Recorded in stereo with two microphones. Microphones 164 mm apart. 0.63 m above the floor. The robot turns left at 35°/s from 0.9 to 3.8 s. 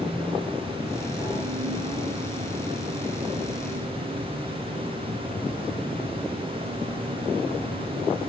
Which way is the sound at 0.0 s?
Straight ahead.